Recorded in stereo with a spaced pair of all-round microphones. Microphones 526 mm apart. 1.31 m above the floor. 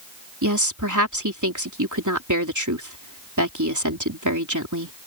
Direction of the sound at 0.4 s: 35° right (ahead or behind).